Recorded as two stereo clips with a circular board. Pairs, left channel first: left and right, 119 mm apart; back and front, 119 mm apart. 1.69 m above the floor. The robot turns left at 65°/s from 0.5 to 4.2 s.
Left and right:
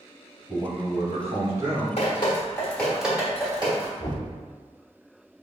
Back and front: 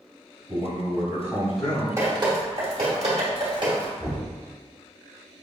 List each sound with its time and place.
0.5 s a man speaking: 20° right, 1.9 m; by 1.9 s 105° right, 1.9 m
2.0 s dripping: 65° left, 1.3 m; by 3.9 s 60° right, 1.3 m
4.0 s knocking: 110° left, 1.6 m; by 4.3 s 95° left, 1.6 m